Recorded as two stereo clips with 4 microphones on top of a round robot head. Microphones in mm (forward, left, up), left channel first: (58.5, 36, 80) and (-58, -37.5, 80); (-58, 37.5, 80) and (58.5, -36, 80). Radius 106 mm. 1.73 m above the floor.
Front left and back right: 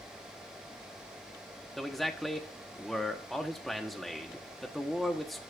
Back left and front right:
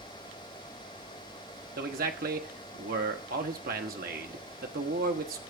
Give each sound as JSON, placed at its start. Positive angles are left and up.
{"t": 1.8, "sound": "a man speaking", "azimuth_deg": -55, "distance_m": 1.2}